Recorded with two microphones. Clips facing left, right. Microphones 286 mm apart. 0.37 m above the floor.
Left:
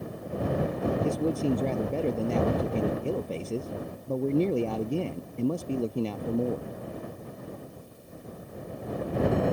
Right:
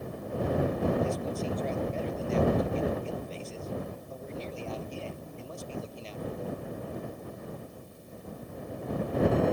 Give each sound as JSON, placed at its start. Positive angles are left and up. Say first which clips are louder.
{"t": 1.0, "sound": "a man speaking", "louder": "left 6 dB", "side_deg": 65}